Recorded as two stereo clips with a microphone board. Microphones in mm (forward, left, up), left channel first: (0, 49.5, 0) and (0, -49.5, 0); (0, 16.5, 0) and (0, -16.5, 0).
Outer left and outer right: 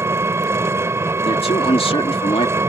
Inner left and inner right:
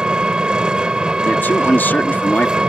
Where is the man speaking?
75° left (ahead or behind).